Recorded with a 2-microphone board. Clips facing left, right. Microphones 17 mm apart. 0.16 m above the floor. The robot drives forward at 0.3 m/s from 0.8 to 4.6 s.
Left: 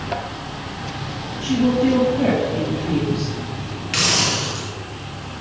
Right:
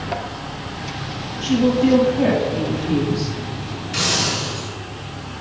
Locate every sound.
1.4 s a woman speaking: 20° right (ahead or behind), 3.5 m; by 3.3 s 15° right (ahead or behind), 4 m
3.9 s a hiss: 45° left (ahead or behind), 1.7 m; by 4.7 s 40° left (ahead or behind), 1.9 m